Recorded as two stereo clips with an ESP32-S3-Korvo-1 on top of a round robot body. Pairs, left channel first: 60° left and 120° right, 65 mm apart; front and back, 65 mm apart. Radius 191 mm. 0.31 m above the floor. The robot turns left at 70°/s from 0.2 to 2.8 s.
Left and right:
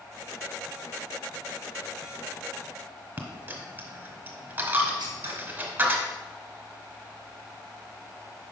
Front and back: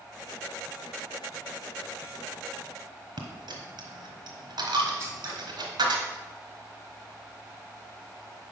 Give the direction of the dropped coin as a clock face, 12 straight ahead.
6 o'clock.